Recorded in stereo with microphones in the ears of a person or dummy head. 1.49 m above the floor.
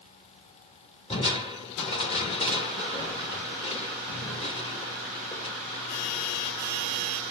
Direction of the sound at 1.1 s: 35° left (ahead or behind).